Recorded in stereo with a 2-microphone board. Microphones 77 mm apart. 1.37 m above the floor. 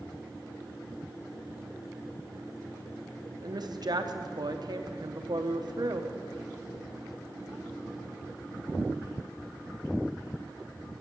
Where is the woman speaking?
60° right (ahead or behind), 0.9 m.